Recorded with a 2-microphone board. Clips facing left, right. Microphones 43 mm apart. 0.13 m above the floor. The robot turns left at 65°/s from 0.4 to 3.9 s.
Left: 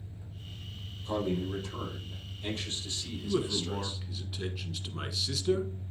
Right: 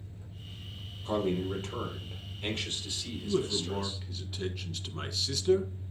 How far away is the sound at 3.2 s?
About 1.2 m.